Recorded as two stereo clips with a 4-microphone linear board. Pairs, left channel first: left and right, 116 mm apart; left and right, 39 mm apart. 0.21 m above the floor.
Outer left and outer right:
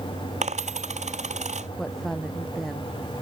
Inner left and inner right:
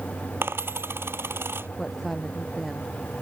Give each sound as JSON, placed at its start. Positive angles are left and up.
{"t": 0.4, "sound": "a dropped coin", "side_deg": -85}
{"t": 1.8, "sound": "a woman speaking", "side_deg": 5}